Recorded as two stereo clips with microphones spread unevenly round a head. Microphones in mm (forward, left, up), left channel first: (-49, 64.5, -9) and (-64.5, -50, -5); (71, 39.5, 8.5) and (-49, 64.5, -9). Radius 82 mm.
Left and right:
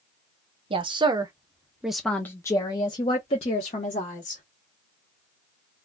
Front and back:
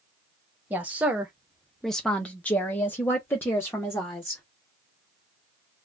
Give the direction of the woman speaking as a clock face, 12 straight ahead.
4 o'clock.